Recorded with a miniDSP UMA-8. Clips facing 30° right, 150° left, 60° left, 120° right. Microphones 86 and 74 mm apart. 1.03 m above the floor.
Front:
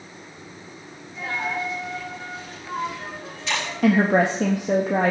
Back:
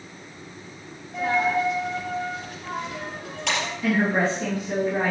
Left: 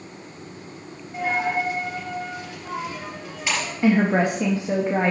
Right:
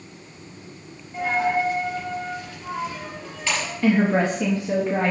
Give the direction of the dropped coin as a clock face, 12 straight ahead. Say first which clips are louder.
Back 6 dB, right 2 dB; 8 o'clock.